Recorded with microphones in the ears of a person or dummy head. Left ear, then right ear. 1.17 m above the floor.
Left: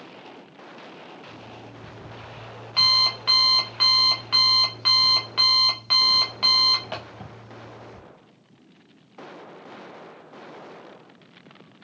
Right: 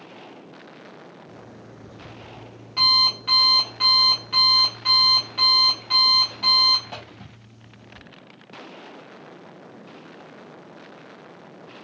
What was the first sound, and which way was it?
An alarm clock, 25° left (ahead or behind).